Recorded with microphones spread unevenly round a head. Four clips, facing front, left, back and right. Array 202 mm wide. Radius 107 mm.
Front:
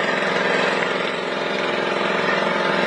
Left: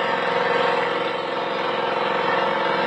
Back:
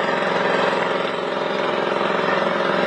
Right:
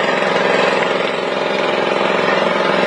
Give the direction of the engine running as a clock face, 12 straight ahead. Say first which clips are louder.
Right 6 dB, back 1 dB; 3 o'clock.